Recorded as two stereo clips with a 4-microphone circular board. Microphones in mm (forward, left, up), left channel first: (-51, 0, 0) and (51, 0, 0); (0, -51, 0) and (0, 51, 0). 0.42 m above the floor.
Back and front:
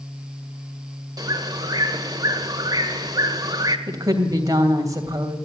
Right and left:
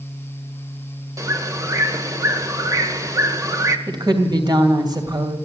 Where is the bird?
40° left, 1.3 m.